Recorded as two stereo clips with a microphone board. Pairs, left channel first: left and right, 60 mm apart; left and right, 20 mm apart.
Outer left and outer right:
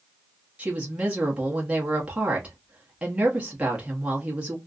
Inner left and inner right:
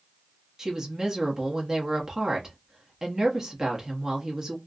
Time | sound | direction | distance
0.6 | a woman speaking | 20° right (ahead or behind) | 0.9 m